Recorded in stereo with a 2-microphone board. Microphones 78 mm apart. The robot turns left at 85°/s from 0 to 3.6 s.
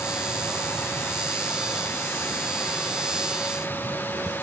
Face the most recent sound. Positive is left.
No sound to turn to.